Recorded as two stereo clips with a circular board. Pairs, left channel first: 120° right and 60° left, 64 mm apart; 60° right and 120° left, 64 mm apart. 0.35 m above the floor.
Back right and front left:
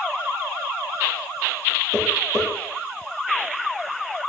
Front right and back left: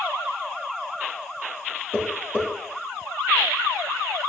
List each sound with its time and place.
1.9 s tapping: 115° right, 3.5 m